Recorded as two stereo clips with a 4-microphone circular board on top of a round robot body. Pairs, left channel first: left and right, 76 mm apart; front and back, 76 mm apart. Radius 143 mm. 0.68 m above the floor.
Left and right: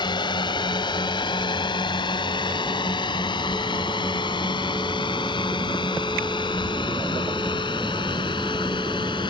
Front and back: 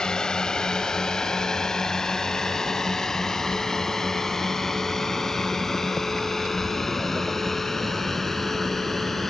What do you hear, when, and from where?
0.0 s a drone: 80° left; by 9.3 s 85° left